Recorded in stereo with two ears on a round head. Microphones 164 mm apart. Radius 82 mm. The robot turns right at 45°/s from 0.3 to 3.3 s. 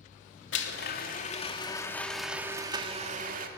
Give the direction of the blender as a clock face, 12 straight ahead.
9 o'clock.